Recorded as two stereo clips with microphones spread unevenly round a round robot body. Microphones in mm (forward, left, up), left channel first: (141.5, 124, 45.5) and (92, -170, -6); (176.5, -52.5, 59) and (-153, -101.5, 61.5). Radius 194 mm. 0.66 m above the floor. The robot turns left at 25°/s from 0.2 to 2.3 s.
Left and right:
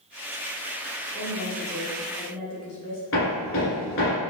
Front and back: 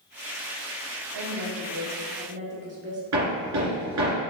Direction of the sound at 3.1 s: 135° left.